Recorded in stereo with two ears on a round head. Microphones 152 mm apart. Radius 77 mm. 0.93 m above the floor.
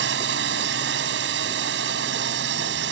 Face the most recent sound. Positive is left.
turn(degrees=-70)  # may be behind; listen again after turning